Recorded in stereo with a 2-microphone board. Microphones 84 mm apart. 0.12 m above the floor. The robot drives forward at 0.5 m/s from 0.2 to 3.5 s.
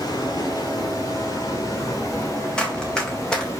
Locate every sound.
0.0 s running water: 50° left (ahead or behind), 3.5 m; by 3.6 s 35° left (ahead or behind), 4.5 m
2.6 s running footsteps: 10° left (ahead or behind), 3.5 m